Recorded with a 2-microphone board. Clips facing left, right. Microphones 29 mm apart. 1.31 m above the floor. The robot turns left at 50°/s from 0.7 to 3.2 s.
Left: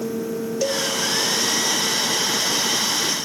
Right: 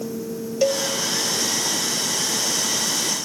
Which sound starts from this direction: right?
A cowbell, at 0.6 s.